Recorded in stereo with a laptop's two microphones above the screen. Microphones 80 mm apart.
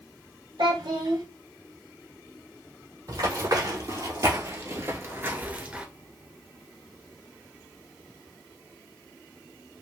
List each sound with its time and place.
0.6 s a child speaking: 75° right (ahead or behind), 1.7 m
3.1 s running footsteps: 50° right (ahead or behind), 1.9 m; by 5.8 s 15° right (ahead or behind), 0.9 m